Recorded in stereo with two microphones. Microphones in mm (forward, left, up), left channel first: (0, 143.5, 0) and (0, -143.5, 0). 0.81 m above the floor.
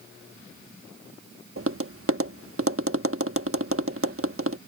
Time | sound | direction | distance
1.6 | tapping | 50° right (ahead or behind) | ?